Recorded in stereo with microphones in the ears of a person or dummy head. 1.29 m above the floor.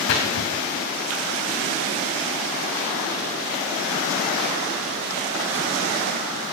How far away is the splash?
About 2.0 m.